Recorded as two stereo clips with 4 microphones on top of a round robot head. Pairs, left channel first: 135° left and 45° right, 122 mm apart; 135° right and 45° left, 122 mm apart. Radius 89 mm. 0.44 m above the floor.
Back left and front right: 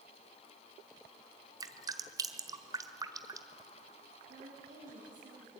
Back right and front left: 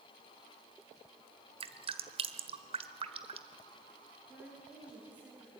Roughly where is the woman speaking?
Ahead right.